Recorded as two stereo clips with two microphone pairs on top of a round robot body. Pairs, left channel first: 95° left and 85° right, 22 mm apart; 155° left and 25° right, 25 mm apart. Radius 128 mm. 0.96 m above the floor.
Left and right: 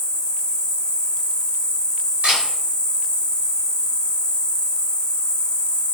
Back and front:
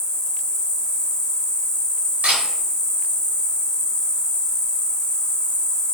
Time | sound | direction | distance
0.0 | an insect | 90° left | 1.6 m
2.2 | a camera shutter | 50° right | 1.7 m